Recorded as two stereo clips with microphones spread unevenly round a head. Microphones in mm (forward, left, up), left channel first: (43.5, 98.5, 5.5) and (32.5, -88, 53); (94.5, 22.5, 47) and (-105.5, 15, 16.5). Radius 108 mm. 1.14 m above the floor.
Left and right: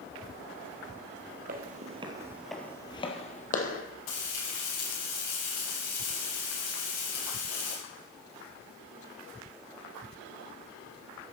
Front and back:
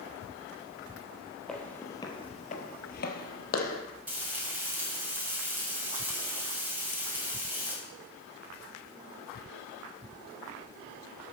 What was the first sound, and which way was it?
Footsteps, 80° right.